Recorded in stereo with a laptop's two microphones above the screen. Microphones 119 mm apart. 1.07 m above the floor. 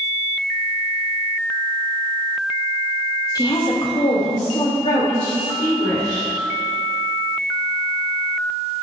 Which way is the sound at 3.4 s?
30° left (ahead or behind).